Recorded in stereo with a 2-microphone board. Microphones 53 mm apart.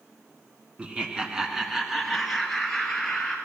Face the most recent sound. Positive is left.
turn(degrees=10)  # may be behind; listen again after turning